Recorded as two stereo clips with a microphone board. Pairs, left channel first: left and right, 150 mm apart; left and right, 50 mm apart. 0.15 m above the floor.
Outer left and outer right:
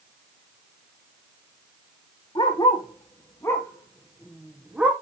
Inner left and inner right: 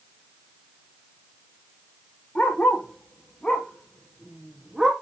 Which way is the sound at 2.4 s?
35° left (ahead or behind).